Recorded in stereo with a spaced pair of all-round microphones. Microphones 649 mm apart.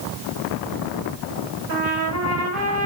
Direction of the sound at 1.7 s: 25° right (ahead or behind).